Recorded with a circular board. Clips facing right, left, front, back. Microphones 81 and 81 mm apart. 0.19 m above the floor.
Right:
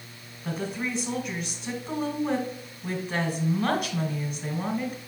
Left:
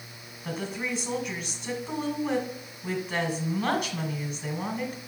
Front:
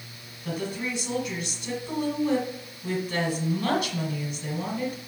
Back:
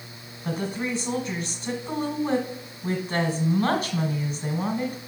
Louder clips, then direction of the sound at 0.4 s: Right 2 dB, back 2 dB; straight behind.